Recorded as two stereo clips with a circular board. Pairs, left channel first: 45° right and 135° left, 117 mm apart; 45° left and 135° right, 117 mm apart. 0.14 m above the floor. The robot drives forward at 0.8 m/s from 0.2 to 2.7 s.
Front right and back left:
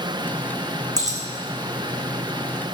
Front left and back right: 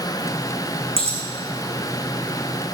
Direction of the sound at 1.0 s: 165° right.